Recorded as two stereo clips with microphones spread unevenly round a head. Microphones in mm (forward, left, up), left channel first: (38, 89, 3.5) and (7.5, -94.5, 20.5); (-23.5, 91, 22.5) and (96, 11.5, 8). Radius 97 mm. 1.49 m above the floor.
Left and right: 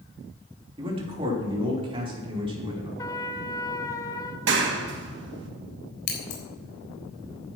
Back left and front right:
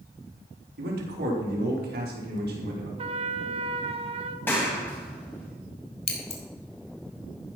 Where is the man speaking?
35° right, 3.5 m.